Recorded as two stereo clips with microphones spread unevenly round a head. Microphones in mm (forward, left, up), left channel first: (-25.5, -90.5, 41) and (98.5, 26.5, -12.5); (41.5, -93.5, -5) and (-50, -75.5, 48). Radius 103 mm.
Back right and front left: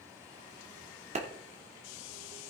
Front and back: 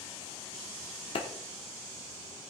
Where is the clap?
Straight ahead, 2.5 m.